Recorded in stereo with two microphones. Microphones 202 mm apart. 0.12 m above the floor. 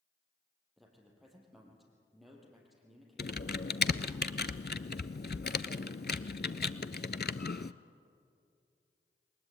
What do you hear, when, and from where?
0.8 s a man speaking: centre (ahead or behind), 4 m
3.2 s typing on a keyboard: 50° left (ahead or behind), 0.5 m